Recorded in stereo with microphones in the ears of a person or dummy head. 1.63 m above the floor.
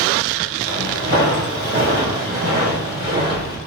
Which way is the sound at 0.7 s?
25° right (ahead or behind).